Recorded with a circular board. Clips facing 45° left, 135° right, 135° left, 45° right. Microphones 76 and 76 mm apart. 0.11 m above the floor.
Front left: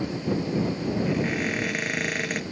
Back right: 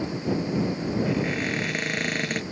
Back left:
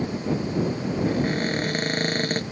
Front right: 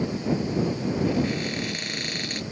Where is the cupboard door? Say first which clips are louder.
Even, back left 4 dB; 130° left.